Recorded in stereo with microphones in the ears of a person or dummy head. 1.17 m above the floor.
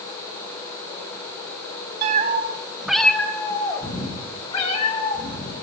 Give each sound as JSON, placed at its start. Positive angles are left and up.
{"t": 2.0, "sound": "a cat meowing", "side_deg": -55, "distance_m": 0.9}